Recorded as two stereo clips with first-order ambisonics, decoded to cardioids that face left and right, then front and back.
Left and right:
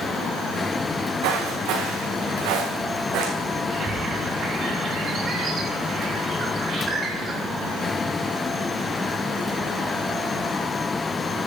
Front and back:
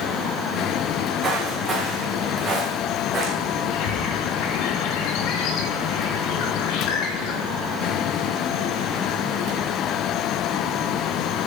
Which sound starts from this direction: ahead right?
A bird, at 3.7 s.